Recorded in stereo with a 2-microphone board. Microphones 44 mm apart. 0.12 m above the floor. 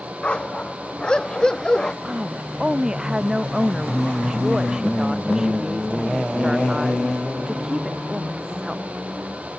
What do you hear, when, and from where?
0.2 s a dog barking: 25° left (ahead or behind); by 1.9 s 15° left (ahead or behind)
2.0 s a woman speaking: 20° right (ahead or behind)